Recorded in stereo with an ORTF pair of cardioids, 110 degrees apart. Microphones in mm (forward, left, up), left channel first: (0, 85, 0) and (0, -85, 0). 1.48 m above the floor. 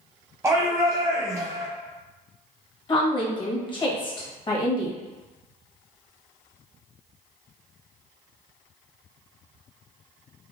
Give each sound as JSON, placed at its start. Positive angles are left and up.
{"t": 0.4, "sound": "a shout", "azimuth_deg": -15, "distance_m": 0.9}
{"t": 2.9, "sound": "a woman speaking", "azimuth_deg": 30, "distance_m": 1.4}